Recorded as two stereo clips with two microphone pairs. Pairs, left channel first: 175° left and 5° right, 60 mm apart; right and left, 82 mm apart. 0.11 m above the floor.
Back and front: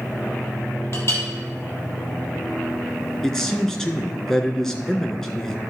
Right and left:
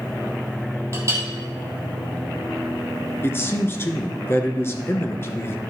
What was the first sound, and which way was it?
A clink, 140° left.